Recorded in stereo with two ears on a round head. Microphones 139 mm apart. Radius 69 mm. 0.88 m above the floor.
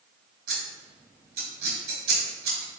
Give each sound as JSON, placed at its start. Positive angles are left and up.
{"t": 0.5, "sound": "scissors", "side_deg": -70, "distance_m": 1.3}